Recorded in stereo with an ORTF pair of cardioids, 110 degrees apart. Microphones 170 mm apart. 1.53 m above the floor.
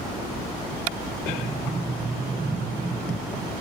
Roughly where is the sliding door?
Ahead.